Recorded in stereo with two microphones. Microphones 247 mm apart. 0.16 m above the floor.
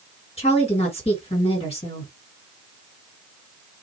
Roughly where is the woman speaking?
Left.